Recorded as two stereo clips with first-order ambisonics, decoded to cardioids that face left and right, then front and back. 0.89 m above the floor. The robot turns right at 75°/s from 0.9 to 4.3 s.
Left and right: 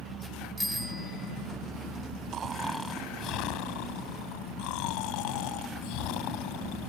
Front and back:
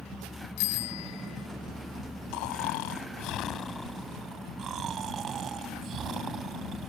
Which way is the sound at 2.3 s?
30° right.